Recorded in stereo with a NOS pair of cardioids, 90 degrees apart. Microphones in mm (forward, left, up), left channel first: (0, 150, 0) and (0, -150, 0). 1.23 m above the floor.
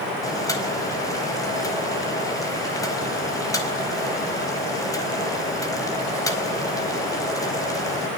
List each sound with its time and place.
0.2 s boiling: 10° left, 4.5 m